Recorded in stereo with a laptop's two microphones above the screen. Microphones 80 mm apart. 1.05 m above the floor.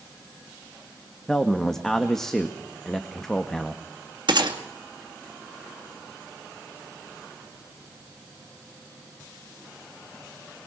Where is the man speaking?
5° left (ahead or behind), 1.7 m.